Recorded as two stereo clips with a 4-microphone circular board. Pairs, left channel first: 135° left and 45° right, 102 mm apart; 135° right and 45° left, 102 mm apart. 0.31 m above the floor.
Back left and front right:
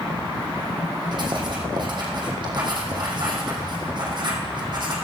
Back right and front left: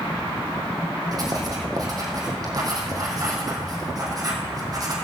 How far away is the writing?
About 3 m.